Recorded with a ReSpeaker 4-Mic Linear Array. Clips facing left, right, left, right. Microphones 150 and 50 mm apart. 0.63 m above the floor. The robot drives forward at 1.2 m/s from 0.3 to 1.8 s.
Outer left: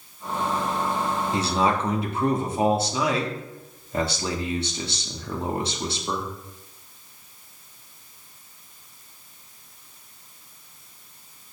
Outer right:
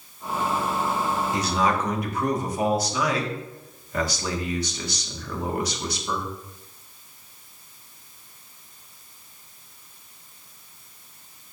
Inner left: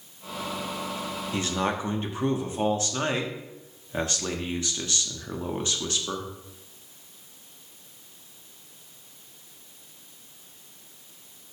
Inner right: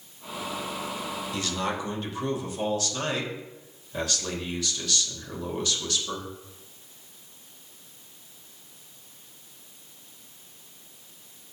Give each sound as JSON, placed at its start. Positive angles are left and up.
{"t": 1.3, "sound": "a man speaking", "side_deg": 25, "distance_m": 1.0}